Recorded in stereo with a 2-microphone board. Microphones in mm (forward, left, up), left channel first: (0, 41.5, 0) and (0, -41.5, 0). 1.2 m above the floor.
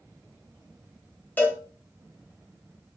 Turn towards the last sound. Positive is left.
turn(degrees=25)  # may be behind; listen again after turning